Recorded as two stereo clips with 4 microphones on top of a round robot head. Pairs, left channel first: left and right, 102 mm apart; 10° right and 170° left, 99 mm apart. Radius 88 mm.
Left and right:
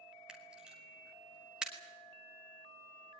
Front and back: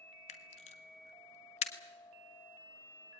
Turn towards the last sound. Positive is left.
turn(degrees=-5)